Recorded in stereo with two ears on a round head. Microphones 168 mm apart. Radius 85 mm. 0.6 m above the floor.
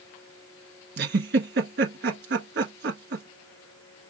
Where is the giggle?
65° right (ahead or behind), 1.3 m.